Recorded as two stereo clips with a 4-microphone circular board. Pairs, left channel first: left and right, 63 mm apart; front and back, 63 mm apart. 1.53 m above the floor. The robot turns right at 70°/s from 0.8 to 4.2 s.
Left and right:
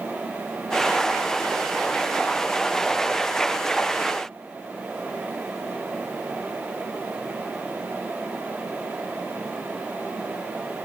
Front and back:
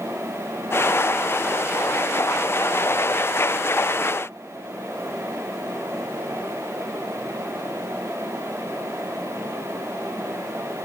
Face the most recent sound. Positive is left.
No sound to turn to.